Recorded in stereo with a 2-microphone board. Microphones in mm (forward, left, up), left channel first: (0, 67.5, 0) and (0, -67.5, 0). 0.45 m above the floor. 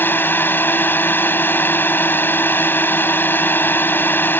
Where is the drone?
15° left (ahead or behind).